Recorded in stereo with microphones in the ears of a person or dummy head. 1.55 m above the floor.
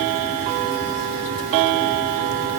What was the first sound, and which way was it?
Only background noise.